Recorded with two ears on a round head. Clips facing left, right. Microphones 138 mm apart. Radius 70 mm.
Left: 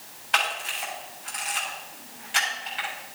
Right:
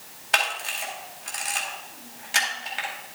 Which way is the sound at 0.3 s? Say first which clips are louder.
Right 1 dB; 55° right (ahead or behind).